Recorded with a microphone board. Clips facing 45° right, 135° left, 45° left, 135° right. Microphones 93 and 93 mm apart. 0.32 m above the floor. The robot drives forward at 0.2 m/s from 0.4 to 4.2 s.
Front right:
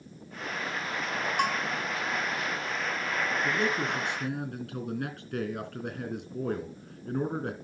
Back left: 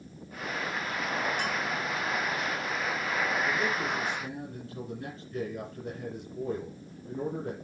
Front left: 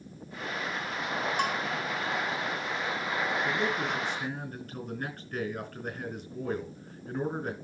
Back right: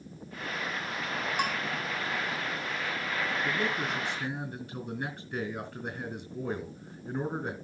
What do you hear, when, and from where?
1.4 s a bell: 55° right, 3 m
3.4 s a man speaking: 60° right, 3.5 m